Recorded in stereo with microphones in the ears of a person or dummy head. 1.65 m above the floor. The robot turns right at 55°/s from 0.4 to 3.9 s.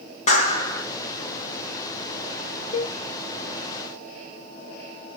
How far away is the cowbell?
About 1.3 m.